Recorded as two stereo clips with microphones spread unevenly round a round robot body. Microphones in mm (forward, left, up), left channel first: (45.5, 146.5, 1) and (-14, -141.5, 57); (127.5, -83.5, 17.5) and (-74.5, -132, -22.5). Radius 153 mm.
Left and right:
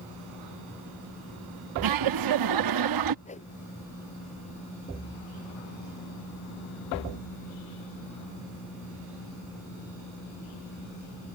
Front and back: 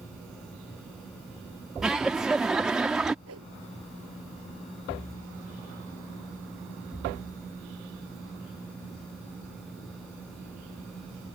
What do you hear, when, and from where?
1.8 s laughter: 80° right
3.2 s a whoosh: 150° left